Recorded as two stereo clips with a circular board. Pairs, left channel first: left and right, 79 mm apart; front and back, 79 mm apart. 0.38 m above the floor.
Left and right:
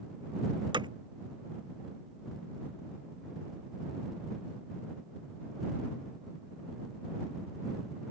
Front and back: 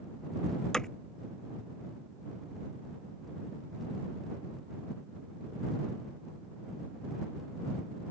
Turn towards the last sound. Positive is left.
turn(degrees=-80)